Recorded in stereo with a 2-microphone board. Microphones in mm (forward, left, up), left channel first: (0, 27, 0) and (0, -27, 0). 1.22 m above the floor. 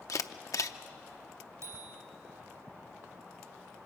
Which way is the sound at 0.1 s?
75° left (ahead or behind).